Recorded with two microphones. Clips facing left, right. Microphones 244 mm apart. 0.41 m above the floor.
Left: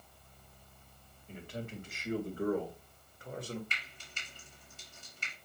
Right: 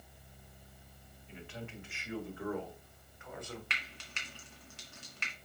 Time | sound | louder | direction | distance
1.3 | a man speaking | left 4 dB | 40° left (ahead or behind) | 2.5 m
3.7 | frying | right 2 dB | 80° right | 2 m